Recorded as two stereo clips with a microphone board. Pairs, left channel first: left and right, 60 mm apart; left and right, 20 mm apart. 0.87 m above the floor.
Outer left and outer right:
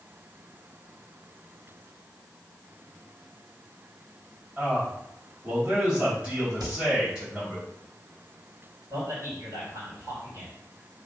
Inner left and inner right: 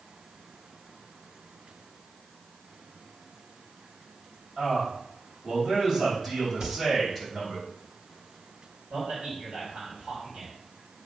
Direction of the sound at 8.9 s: 50° right (ahead or behind).